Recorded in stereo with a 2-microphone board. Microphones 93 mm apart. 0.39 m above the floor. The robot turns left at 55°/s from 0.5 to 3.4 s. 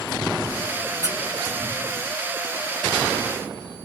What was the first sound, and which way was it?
A squeak, 35° left (ahead or behind).